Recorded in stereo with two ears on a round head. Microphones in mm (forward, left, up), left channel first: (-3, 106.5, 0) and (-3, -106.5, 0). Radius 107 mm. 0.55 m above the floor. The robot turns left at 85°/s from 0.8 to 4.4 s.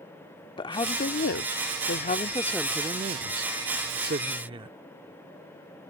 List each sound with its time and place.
0.6 s a woman speaking: 155° left; by 4.8 s 150° right